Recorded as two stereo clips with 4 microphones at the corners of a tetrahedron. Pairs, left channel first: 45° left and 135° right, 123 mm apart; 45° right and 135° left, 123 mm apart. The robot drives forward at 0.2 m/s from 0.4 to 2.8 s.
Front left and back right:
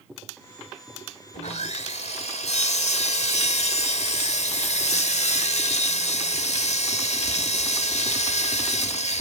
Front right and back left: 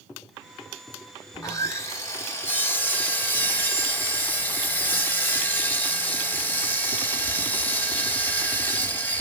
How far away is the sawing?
About 0.7 m.